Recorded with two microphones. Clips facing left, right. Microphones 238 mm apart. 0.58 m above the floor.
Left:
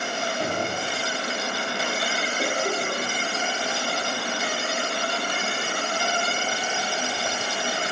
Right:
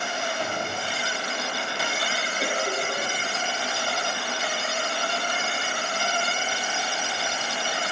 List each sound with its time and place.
0.4 s a gunshot: 40° left (ahead or behind), 5 m
2.4 s a cough: 45° left (ahead or behind), 8 m